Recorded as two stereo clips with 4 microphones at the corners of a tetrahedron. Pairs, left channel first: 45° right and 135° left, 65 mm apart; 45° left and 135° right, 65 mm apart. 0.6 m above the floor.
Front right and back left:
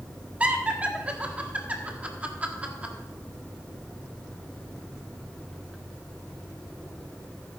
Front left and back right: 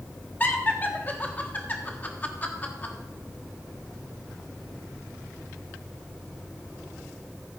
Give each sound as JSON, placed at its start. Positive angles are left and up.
{"t": 0.4, "sound": "laughter", "azimuth_deg": 85, "distance_m": 1.4}